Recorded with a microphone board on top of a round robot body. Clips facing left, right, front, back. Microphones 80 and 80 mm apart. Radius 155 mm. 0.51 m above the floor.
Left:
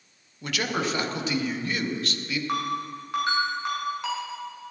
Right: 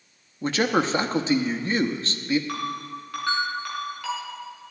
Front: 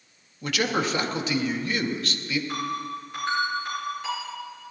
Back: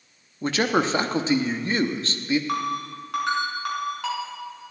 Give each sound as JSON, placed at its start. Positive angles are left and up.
{"t": 0.4, "sound": "a man speaking", "azimuth_deg": -135, "distance_m": 1.0}
{"t": 2.5, "sound": "a ringtone", "azimuth_deg": 160, "distance_m": 4.0}